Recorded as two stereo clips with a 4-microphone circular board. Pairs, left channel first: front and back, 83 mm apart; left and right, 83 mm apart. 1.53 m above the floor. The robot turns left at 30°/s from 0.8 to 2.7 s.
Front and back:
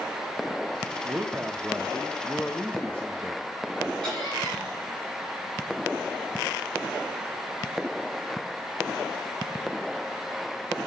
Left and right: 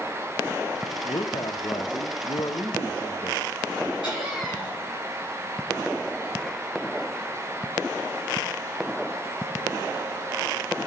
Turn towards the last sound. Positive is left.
turn(degrees=80)